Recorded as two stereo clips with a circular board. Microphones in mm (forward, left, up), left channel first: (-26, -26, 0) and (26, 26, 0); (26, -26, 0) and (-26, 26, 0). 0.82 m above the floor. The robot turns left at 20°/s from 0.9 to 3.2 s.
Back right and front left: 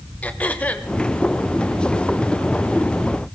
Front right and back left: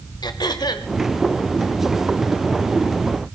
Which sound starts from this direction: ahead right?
Throat clearing, at 0.2 s.